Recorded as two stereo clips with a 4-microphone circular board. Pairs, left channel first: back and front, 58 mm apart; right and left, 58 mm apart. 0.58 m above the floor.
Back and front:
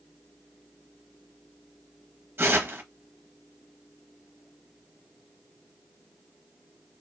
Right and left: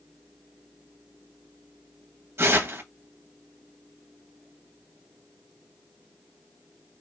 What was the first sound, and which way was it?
Tearing paper, 50° left.